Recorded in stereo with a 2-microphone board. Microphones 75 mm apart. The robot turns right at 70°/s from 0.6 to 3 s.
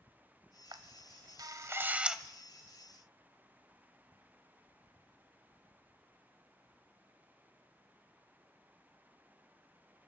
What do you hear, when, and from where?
0.7 s a camera shutter: 65° right (ahead or behind), 0.8 m; by 2.2 s 5° right (ahead or behind), 0.8 m